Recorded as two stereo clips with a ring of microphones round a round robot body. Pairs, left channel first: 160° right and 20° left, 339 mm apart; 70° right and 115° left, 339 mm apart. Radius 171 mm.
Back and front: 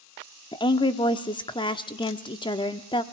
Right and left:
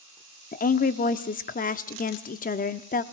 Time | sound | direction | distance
0.5 | a woman speaking | 95° right | 0.7 m